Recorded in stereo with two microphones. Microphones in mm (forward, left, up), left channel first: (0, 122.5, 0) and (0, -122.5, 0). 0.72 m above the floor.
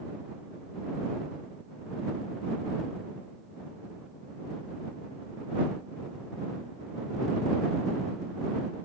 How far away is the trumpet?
No trumpet in this recording.